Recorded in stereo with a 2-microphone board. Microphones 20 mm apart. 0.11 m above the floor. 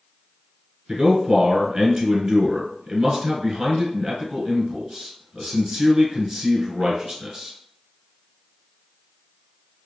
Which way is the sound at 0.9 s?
30° right (ahead or behind).